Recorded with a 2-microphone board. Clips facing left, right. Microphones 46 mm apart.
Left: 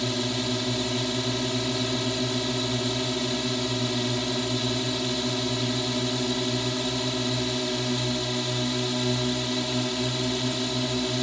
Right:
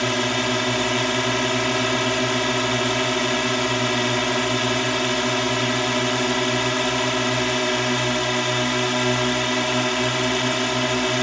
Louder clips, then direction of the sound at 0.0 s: Right 6 dB; 60° right (ahead or behind).